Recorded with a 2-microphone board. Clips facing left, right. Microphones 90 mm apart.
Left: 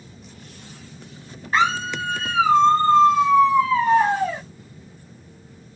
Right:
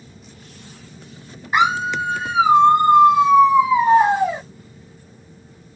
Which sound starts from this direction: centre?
A scream, at 1.5 s.